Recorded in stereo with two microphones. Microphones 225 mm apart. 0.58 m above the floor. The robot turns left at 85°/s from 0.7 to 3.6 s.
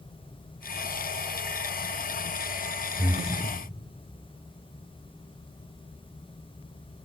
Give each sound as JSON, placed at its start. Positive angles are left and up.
{"t": 3.0, "sound": "breathing", "azimuth_deg": 30, "distance_m": 1.1}